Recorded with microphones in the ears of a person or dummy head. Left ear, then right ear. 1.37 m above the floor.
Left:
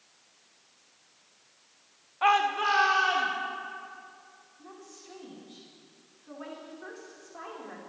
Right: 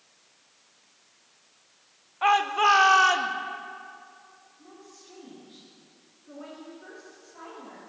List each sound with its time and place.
2.2 s a shout: 5° left (ahead or behind), 0.7 m; by 3.3 s 55° right (ahead or behind), 1.5 m
4.6 s a woman speaking: 35° left (ahead or behind), 4 m